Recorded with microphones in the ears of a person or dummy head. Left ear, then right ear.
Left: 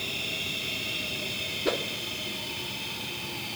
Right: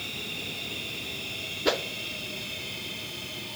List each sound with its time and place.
1.6 s a whoosh: 30° right (ahead or behind), 0.5 m